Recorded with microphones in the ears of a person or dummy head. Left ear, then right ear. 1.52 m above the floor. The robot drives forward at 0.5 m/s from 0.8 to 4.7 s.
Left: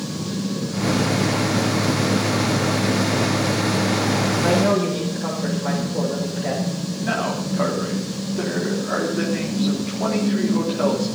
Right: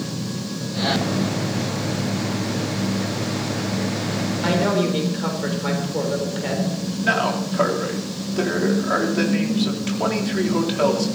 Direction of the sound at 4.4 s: 45° right (ahead or behind).